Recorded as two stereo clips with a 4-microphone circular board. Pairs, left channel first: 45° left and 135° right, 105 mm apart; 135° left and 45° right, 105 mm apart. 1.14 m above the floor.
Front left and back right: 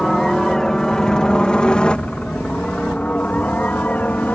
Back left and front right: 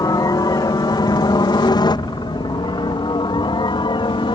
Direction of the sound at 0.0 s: 130° left.